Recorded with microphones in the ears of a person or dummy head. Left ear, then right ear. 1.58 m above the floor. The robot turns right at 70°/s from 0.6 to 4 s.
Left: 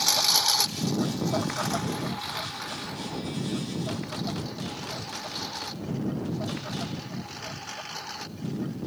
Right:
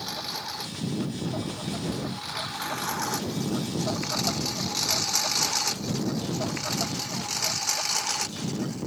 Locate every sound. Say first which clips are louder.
0.0 s a lawn mower: left 11 dB; 45° left (ahead or behind); by 8.9 s 40° right (ahead or behind)